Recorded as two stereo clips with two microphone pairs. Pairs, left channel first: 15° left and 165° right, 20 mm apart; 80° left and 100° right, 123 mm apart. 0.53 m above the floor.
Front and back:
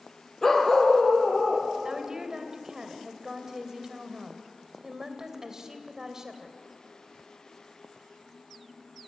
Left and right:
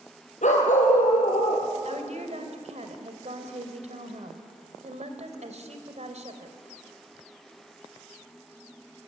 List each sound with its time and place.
0.4 s a dog barking: 95° left, 4 m; by 1.7 s 70° left, 5 m
1.9 s a woman speaking: 100° right, 3 m